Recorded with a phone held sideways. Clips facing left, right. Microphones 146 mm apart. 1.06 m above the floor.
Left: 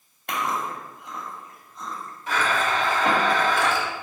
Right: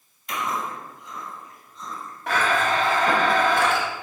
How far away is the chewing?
About 2.5 m.